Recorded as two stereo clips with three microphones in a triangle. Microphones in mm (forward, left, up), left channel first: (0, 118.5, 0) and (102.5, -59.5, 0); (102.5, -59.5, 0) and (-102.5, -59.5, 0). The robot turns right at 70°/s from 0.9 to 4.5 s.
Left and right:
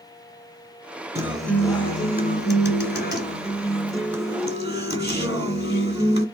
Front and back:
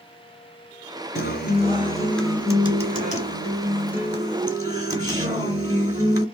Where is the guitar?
10° left, 1.4 m; by 6.2 s 115° right, 1.4 m.